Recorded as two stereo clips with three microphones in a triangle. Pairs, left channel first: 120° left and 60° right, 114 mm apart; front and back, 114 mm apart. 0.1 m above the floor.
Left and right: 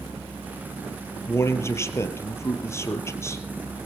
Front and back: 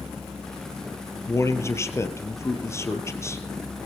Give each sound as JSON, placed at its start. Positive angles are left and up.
{"t": 1.3, "sound": "a man speaking", "azimuth_deg": 60, "distance_m": 2.5}